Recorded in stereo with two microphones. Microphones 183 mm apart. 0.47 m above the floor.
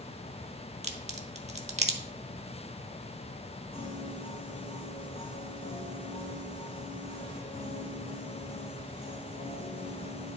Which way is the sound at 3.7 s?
55° left (ahead or behind).